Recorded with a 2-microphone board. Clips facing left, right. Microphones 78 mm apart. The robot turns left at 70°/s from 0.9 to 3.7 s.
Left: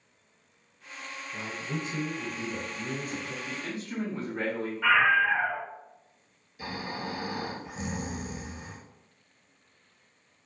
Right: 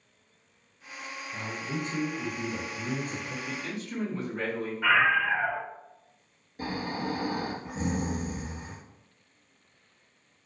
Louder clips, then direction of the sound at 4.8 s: Left 1 dB; 10° right (ahead or behind).